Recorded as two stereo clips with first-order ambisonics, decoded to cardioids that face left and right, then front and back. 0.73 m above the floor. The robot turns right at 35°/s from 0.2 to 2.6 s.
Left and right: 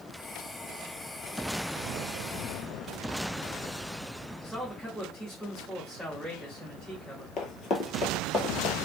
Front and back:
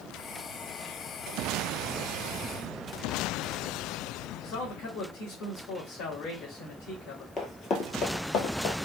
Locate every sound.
4.4 s a man speaking: 5° left, 1.5 m
7.4 s running footsteps: 60° left, 0.9 m; by 8.8 s 20° left, 1.3 m